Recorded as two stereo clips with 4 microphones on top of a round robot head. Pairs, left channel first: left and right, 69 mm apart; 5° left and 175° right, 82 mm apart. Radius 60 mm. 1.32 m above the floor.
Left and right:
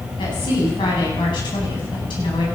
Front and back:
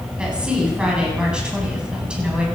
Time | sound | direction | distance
0.2 | a woman speaking | 105° left | 8.5 m